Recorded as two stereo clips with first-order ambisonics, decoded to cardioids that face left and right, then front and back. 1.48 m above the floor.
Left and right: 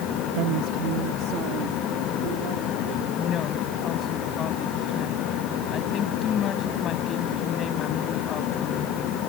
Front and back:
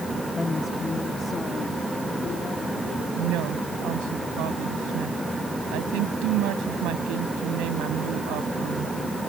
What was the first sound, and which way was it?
A woman speaking, 80° right.